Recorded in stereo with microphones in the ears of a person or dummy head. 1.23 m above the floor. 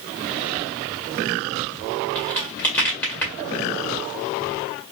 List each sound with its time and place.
2.1 s a crack: 5° left (ahead or behind), 1.8 m